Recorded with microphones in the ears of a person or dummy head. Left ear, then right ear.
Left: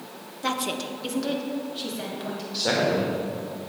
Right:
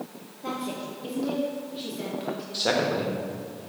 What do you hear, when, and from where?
0.4 s a woman speaking: 55° left (ahead or behind), 0.9 m; by 2.4 s 15° left (ahead or behind), 3 m
2.5 s a man speaking: 20° right (ahead or behind), 1.4 m